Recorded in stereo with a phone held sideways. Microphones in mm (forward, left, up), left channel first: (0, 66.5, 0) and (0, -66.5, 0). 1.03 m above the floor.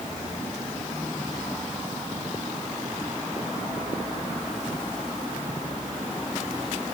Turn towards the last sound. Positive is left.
No sound to turn to.